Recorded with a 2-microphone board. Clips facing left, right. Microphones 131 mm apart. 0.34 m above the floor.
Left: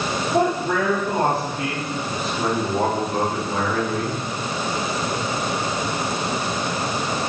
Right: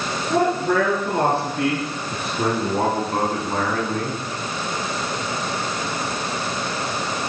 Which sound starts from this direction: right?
A man speaking, at 0.3 s.